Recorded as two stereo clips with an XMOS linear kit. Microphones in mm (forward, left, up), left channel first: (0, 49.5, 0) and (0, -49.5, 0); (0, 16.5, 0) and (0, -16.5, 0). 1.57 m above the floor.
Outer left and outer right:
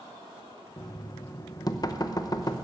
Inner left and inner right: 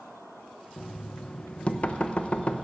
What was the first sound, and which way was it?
Knocking, 40° left (ahead or behind).